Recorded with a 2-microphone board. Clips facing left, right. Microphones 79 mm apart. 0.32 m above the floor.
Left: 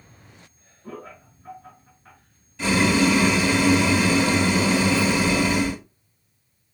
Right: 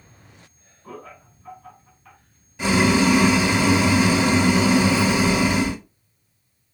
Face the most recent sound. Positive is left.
turn(degrees=-15)  # may be behind; listen again after turning